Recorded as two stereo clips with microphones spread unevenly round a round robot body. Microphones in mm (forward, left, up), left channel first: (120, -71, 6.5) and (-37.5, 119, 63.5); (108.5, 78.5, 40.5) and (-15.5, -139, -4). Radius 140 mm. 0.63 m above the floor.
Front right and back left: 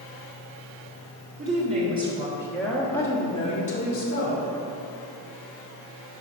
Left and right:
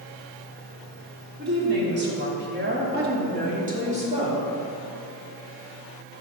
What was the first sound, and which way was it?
A woman speaking, 160° right.